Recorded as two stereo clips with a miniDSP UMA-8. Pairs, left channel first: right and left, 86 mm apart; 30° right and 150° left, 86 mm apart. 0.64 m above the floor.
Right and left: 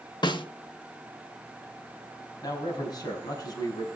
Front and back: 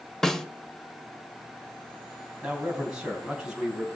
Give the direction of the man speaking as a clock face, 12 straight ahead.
4 o'clock.